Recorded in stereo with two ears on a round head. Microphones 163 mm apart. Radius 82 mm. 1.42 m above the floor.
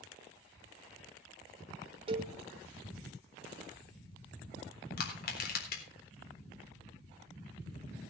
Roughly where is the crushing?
Left.